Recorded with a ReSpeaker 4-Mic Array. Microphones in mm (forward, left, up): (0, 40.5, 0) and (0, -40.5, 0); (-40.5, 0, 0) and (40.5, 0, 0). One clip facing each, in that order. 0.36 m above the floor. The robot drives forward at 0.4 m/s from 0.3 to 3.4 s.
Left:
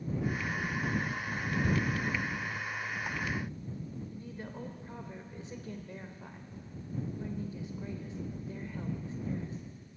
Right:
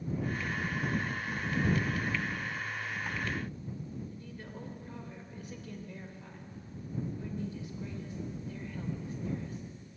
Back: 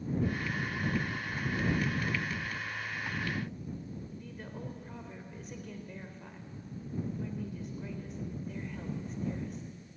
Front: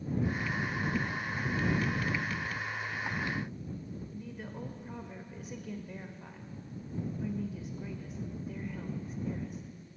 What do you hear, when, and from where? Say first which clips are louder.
4.1 s a woman speaking: left 2 dB, front 2 dB; 80° left, 1.0 m